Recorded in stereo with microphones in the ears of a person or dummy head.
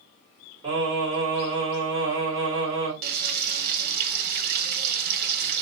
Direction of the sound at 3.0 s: 55° right (ahead or behind).